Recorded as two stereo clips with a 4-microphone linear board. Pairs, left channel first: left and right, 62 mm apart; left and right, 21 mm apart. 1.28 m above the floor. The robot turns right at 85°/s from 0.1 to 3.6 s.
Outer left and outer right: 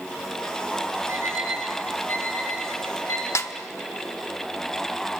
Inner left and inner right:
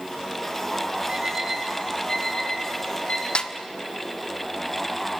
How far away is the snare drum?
About 1.2 m.